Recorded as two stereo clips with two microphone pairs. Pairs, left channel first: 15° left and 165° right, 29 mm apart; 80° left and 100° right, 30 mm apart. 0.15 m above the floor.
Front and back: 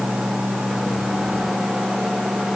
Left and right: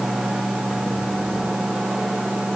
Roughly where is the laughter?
No laughter in this recording.